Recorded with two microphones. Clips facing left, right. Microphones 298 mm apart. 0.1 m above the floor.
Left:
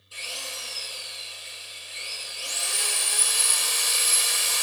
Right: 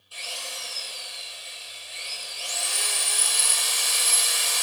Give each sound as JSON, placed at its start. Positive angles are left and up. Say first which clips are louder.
{"t": 0.1, "sound": "a drill", "louder": "even", "side_deg": 30, "distance_m": 1.4}